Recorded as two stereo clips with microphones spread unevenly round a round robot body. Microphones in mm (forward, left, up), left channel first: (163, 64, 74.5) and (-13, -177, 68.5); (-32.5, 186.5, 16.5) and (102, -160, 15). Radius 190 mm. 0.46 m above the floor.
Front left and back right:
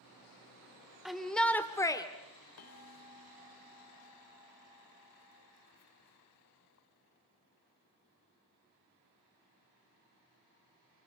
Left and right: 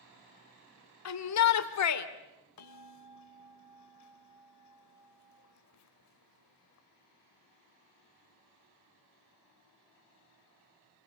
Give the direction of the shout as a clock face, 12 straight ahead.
7 o'clock.